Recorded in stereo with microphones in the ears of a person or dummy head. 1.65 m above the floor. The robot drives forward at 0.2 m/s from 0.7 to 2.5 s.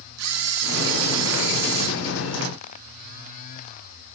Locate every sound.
0.2 s a camera shutter: 75° right (ahead or behind), 3 m; by 1.9 s 70° right (ahead or behind), 3 m